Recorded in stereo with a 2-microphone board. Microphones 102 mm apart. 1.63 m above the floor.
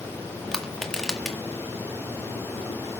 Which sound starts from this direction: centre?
Crushing, at 0.5 s.